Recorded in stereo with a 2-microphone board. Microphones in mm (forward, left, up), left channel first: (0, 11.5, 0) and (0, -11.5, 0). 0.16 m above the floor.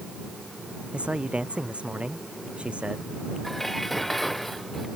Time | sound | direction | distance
0.9 | a man speaking | 50° right (ahead or behind) | ?
3.4 | dishes clattering | 10° left (ahead or behind) | ?